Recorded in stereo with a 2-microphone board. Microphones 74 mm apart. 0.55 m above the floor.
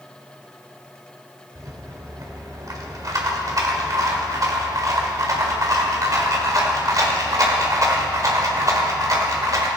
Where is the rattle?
50° right (ahead or behind), 1.7 m.